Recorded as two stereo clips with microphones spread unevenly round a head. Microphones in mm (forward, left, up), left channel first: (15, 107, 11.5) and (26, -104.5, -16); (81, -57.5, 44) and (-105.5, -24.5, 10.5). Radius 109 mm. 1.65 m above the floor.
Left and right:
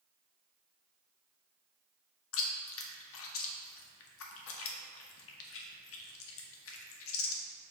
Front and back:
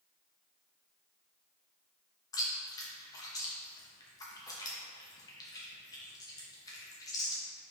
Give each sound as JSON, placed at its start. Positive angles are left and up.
{"t": 2.3, "sound": "chewing", "azimuth_deg": 65, "distance_m": 0.8}